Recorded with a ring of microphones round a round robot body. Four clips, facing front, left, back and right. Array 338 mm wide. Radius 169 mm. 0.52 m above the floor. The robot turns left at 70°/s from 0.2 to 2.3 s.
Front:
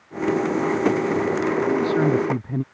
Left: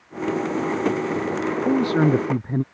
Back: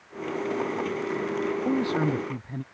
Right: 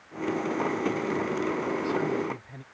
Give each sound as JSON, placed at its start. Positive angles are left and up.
{"t": 1.6, "sound": "a man speaking", "azimuth_deg": 105}